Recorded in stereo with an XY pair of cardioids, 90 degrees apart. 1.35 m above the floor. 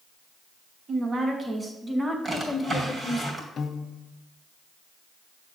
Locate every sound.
0.9 s a woman speaking: 40° right, 2 m; by 3.2 s 30° left, 1.9 m
2.2 s a drawer: 30° right, 3 m
3.6 s a piano: 55° left, 0.6 m